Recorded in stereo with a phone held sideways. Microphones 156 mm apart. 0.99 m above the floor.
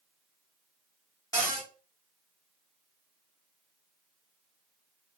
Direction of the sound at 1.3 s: 20° left (ahead or behind).